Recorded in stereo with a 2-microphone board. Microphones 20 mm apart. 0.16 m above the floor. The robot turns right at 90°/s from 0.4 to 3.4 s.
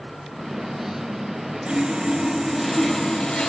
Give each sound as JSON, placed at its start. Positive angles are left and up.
{"t": 1.6, "sound": "sawing", "azimuth_deg": -85, "distance_m": 1.0}